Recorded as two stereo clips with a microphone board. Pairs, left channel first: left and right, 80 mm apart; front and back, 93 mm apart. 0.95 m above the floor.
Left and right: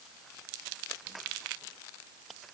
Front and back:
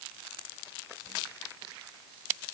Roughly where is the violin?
I don't hear a violin.